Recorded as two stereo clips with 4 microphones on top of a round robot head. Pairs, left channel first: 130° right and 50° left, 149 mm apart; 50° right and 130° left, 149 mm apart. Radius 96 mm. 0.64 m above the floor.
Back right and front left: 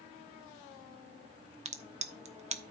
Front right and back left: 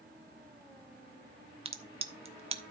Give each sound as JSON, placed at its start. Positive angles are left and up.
{"t": 1.6, "sound": "a crack", "azimuth_deg": 85, "distance_m": 1.2}